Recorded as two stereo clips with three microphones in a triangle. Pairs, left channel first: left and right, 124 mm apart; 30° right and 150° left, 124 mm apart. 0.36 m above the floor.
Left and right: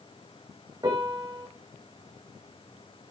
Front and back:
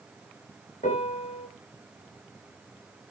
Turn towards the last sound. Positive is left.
turn(degrees=-35)